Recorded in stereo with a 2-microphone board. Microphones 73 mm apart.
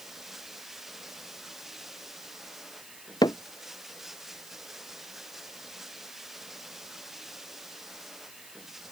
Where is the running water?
5° right (ahead or behind).